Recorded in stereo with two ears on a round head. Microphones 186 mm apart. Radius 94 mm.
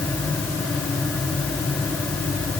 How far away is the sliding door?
No sliding door in this recording.